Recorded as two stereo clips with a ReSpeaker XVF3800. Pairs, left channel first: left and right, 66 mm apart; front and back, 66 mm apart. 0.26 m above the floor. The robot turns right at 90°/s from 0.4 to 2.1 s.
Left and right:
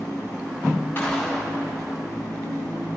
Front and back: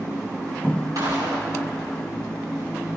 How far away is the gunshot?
About 7 m.